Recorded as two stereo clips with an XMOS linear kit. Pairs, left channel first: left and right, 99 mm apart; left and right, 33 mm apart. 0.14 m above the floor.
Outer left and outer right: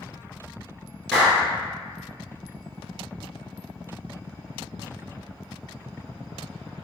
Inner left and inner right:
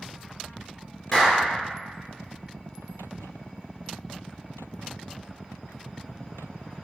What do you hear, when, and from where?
1.1 s a clap: 5° left (ahead or behind), 1.9 m